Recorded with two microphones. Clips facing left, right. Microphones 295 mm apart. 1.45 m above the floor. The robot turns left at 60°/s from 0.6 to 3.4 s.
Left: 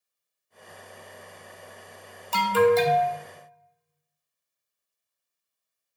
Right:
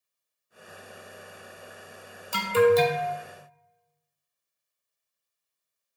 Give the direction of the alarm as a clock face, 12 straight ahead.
1 o'clock.